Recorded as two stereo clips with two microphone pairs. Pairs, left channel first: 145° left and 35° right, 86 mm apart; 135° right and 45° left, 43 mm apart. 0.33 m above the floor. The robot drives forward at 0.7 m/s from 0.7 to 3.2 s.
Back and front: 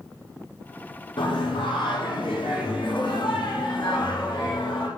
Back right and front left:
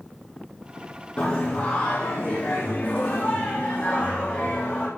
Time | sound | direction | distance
1.2 | singing | 160° left | 4 m